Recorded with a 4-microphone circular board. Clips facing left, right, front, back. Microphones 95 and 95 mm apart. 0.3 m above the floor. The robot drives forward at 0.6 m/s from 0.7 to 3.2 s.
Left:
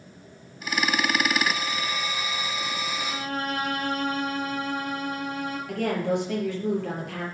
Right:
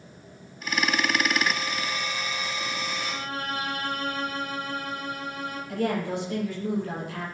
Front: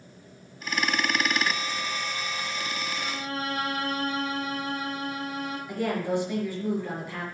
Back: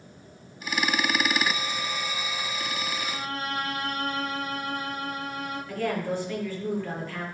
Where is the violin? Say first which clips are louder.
Left 2 dB, even; 55° left, 4.5 m; by 5.6 s 60° left, 4.5 m.